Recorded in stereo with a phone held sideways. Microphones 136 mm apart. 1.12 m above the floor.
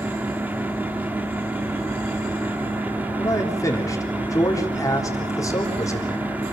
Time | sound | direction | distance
0.0 | a fan | 10° right (ahead or behind) | 1.8 m
3.2 | a man speaking | 25° left (ahead or behind) | 3.5 m